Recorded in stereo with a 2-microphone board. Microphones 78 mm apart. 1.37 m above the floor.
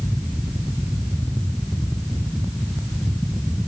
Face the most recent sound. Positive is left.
No sound to turn to.